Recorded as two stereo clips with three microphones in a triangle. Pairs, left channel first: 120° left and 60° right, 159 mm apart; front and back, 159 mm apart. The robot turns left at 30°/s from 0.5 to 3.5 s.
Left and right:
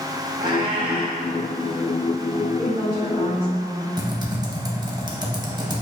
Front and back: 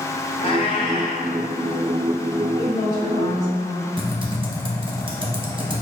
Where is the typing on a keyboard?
125° right, 0.8 m.